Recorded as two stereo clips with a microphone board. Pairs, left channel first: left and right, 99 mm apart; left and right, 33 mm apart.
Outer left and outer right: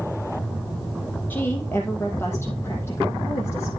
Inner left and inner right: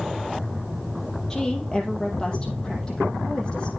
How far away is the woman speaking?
About 3.5 m.